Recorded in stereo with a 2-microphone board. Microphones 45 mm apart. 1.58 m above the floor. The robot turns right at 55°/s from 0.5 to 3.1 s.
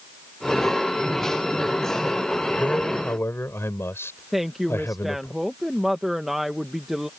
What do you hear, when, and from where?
2.6 s a man speaking: 40° left (ahead or behind); by 5.3 s 70° left (ahead or behind)
4.3 s a woman speaking: 5° right (ahead or behind)